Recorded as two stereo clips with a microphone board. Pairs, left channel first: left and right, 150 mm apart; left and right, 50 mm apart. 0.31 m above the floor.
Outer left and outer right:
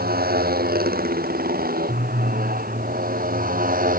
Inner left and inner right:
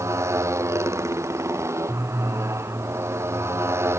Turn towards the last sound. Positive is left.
turn(degrees=-60)  # may be behind; listen again after turning